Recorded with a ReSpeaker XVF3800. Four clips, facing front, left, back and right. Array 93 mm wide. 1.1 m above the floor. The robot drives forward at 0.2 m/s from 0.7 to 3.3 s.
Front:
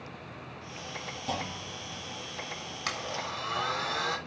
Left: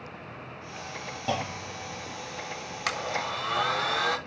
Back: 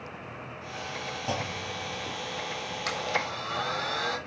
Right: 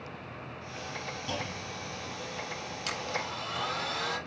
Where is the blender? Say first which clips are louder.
Left 5 dB, back 4 dB; 85° left, 3 m.